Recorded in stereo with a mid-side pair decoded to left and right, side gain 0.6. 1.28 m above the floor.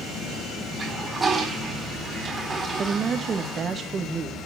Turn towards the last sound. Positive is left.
turn(degrees=-40)